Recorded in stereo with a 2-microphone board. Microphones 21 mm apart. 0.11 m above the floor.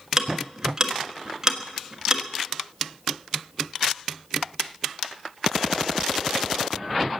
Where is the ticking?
20° right (ahead or behind), 1.3 m.